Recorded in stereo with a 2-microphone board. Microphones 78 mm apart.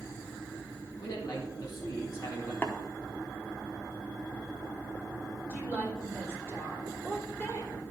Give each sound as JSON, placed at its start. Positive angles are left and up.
{"t": 1.0, "sound": "a man speaking", "side_deg": 60, "distance_m": 2.0}
{"t": 2.6, "sound": "tapping", "side_deg": 30, "distance_m": 1.0}
{"t": 5.5, "sound": "a woman speaking", "side_deg": 35, "distance_m": 3.5}